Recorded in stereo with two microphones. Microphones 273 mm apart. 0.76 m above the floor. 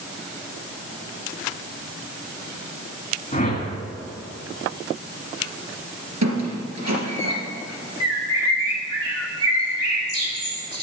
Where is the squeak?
80° right, 3 m.